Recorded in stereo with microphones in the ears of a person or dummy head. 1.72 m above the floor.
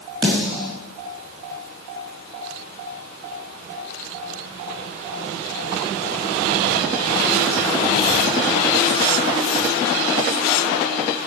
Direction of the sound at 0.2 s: 25° right (ahead or behind).